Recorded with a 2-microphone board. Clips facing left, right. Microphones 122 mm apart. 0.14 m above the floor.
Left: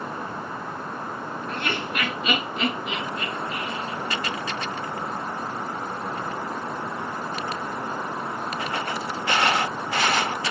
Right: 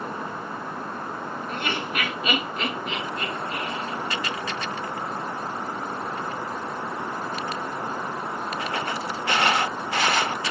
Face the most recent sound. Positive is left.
turn(degrees=15)  # may be behind; listen again after turning